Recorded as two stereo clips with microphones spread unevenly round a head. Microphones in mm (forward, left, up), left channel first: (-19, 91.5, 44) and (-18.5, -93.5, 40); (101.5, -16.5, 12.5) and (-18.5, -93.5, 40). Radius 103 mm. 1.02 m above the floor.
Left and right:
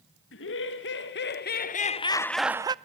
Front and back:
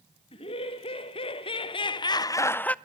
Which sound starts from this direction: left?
Laughter, at 0.3 s.